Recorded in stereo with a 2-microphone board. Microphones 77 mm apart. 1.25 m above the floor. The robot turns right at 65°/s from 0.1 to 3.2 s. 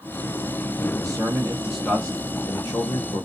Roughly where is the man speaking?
Ahead right.